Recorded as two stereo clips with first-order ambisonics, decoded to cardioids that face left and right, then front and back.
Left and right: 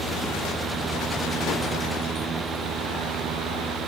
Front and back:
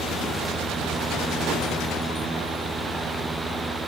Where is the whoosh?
145° left, 0.8 m.